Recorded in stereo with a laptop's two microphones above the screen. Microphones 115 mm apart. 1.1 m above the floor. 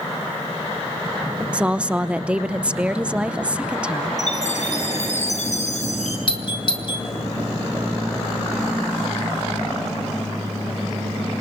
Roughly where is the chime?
Left.